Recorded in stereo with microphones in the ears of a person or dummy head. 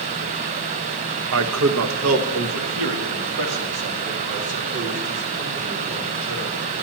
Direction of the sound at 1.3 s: 80° right.